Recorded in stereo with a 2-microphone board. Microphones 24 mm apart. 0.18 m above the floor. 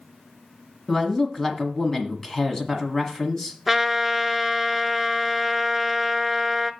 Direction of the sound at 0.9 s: 25° left (ahead or behind).